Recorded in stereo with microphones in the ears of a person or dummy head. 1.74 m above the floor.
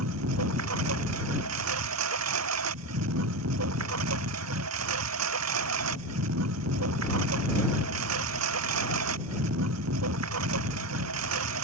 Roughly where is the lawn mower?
Right.